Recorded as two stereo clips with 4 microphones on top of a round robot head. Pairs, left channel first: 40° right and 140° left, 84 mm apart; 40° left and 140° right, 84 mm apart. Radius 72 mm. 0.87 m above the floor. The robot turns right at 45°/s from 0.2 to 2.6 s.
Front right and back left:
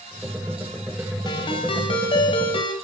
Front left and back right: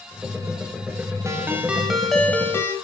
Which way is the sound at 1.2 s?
80° right.